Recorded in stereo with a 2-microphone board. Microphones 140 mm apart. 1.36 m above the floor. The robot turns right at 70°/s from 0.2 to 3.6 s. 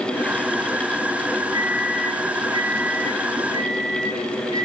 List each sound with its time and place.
1.5 s a microwave: 20° right, 6.5 m; by 4.7 s 125° left, 6.5 m